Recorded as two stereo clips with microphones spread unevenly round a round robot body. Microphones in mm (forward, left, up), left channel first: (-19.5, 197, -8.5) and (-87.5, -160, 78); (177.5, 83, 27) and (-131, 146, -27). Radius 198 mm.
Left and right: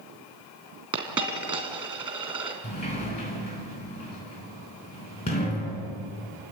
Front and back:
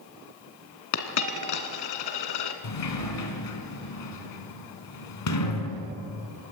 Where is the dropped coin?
20° right, 2.5 m.